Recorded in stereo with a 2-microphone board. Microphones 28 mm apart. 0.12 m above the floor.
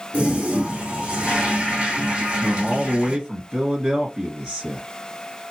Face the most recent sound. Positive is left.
turn(degrees=-40)  # may be behind; listen again after turning